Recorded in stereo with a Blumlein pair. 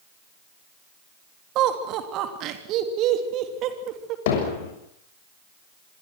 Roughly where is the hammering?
Ahead left.